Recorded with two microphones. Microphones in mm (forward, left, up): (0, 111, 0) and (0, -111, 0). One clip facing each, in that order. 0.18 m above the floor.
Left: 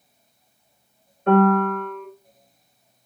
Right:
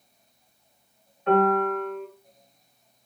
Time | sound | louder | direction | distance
1.3 | a piano | left 4 dB | 45° left (ahead or behind) | 1.1 m